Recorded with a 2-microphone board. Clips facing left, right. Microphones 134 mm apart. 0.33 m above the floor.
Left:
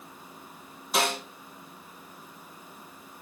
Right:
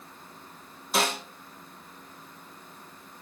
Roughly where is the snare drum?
Centre.